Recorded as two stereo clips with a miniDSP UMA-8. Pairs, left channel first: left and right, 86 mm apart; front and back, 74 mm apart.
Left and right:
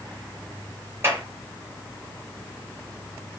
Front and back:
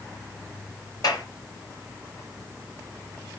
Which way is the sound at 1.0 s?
30° right.